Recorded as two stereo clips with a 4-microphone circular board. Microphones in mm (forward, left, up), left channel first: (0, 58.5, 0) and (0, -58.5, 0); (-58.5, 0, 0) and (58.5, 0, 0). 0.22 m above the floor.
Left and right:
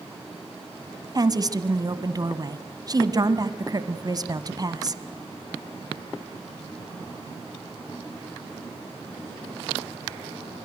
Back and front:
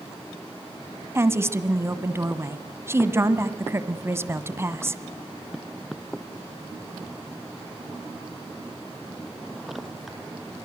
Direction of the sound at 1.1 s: 55° right.